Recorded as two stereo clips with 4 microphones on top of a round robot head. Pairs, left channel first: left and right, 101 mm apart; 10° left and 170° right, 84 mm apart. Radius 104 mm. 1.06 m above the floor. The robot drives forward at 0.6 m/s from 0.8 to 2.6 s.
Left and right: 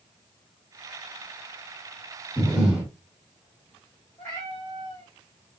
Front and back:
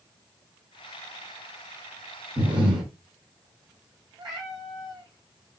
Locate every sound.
2.4 s breathing: 170° right, 0.8 m
4.2 s a cat meowing: 170° left, 1.9 m